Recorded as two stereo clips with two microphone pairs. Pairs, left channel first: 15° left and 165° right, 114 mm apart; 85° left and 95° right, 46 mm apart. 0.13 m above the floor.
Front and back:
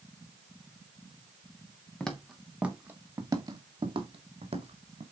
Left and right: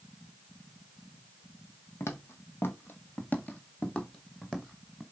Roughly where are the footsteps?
Left.